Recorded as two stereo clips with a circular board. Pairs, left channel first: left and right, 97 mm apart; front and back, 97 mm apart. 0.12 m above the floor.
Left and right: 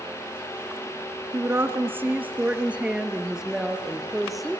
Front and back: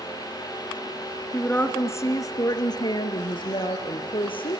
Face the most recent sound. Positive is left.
turn(degrees=0)